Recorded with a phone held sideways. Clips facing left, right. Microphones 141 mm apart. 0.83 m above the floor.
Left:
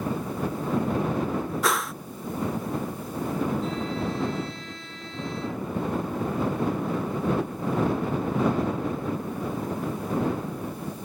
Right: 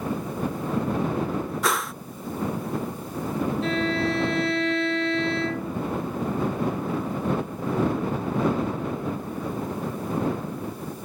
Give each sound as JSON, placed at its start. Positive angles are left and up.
{"t": 1.6, "sound": "a whoosh", "side_deg": 0}
{"t": 3.6, "sound": "a violin", "side_deg": -75}